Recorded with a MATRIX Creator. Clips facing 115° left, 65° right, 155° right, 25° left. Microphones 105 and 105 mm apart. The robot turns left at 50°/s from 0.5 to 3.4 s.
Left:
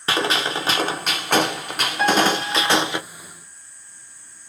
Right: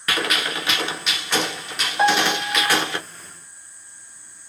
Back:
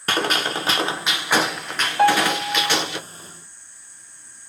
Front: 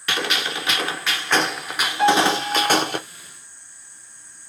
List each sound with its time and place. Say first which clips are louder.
0.1 s a gunshot: left 3 dB, back 3 dB; 165° left, 0.7 m; by 3.0 s 40° left, 0.7 m
2.0 s a piano: even, even; 125° right, 1.6 m; by 2.8 s 170° right, 1.6 m